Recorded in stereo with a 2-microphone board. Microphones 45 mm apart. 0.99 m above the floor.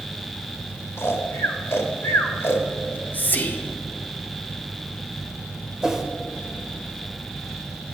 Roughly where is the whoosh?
Centre.